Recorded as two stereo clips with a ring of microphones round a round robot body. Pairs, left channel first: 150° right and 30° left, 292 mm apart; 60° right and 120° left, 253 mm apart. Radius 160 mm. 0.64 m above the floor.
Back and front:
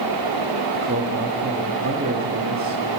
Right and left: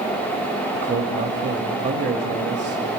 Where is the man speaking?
85° left, 1.6 m.